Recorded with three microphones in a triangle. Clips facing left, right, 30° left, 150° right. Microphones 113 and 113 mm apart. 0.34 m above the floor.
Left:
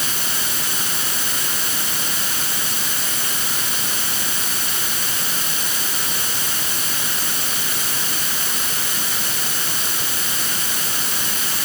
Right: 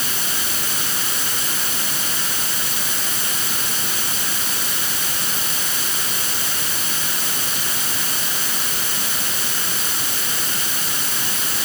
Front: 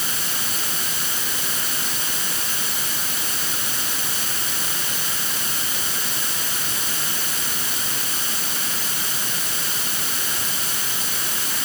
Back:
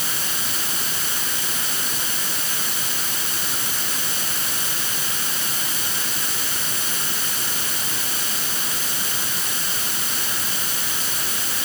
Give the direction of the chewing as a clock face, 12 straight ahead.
I don't hear chewing.